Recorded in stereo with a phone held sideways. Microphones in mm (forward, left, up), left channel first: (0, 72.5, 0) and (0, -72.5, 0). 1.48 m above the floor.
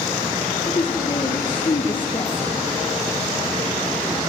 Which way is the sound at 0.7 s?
35° left (ahead or behind).